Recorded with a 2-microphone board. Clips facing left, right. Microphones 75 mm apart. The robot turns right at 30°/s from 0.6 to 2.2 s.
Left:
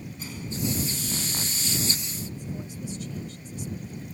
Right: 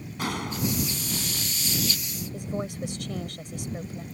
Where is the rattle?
No rattle in this recording.